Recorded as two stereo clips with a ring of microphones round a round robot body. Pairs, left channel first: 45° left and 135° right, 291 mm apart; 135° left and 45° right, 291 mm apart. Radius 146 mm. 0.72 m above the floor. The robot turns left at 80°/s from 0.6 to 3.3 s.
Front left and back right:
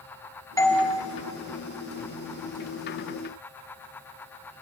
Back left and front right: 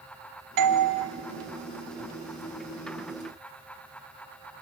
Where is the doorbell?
35° right, 1.8 m; by 0.9 s 55° right, 1.8 m.